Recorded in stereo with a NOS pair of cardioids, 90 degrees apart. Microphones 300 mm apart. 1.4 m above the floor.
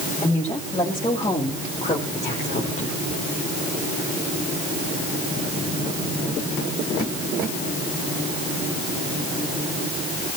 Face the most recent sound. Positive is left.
turn(degrees=25)